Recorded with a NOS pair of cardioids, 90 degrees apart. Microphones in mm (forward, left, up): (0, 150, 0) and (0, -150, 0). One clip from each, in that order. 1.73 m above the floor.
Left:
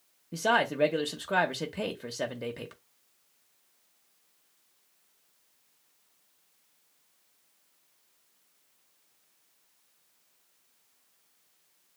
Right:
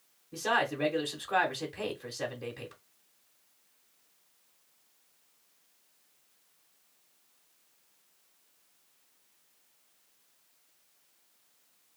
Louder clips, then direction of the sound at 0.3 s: Left 3 dB; 40° left.